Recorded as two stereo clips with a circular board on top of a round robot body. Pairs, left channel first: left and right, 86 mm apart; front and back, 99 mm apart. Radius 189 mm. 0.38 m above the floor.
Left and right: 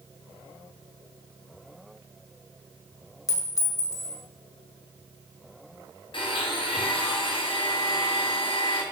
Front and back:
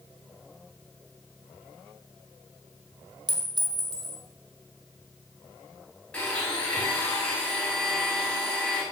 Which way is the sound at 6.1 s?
80° left.